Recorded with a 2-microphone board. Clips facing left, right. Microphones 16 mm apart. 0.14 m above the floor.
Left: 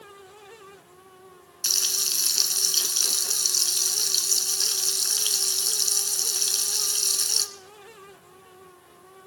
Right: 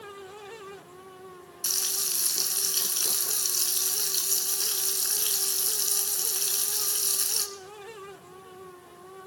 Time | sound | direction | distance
1.6 | frying | 35° left (ahead or behind) | 1.1 m